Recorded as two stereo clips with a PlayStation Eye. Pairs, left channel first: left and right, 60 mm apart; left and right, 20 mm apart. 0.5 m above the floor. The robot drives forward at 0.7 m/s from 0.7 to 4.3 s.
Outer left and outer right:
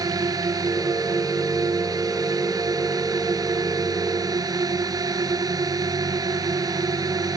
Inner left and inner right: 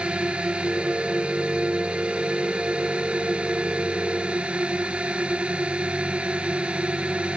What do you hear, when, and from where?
0.0 s a drone: 75° right (ahead or behind)